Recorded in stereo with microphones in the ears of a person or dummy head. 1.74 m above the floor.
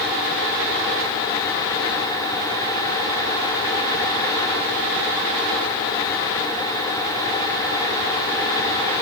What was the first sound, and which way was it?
Only background noise.